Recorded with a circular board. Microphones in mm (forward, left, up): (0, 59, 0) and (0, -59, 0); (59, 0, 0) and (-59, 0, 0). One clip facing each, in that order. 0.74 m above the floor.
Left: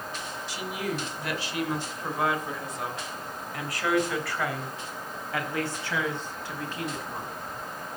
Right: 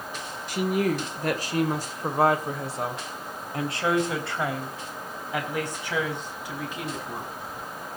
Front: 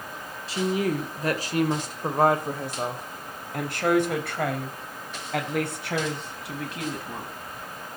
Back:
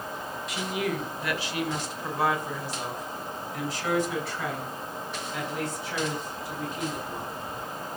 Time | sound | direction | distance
0.5 | a woman speaking | 55° right | 2.5 m